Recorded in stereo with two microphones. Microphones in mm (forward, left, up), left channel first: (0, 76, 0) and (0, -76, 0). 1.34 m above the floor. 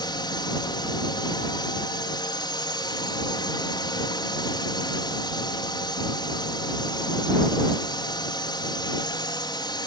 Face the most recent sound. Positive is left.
turn(degrees=30)  # may be behind; listen again after turning